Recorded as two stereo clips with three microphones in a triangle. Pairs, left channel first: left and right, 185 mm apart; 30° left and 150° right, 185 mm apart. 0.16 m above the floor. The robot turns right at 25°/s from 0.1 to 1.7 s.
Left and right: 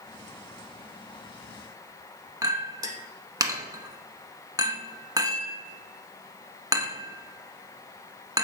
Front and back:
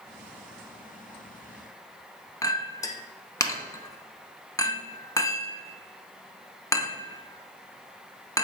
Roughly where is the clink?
Ahead right.